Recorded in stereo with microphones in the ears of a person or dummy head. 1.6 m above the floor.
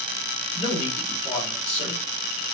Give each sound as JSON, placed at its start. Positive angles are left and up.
{"t": 0.6, "sound": "a man speaking", "side_deg": 0, "distance_m": 3.5}